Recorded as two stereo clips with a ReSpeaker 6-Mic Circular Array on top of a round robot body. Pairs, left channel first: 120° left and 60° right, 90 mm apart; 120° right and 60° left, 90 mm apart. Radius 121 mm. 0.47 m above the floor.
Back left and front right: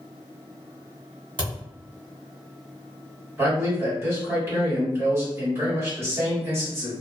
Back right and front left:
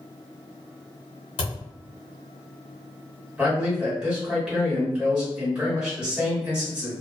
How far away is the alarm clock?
No alarm clock in this recording.